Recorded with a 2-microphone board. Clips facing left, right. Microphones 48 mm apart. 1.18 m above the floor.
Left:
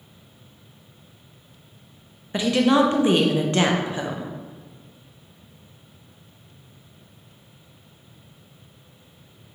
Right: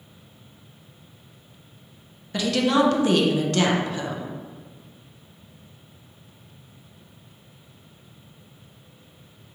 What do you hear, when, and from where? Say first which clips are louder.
2.3 s a woman speaking: left 2 dB; 25° left (ahead or behind), 0.5 m